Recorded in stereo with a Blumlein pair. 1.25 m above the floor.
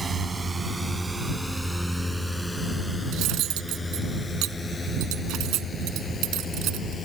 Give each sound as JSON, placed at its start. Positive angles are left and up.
{"t": 0.0, "sound": "a drone", "azimuth_deg": -15}
{"t": 3.1, "sound": "cutlery clinking", "azimuth_deg": -35}